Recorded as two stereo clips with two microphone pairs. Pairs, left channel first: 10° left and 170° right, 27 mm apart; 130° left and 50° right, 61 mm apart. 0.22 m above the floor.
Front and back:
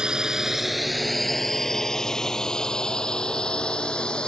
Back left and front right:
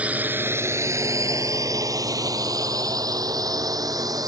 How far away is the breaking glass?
I don't hear breaking glass.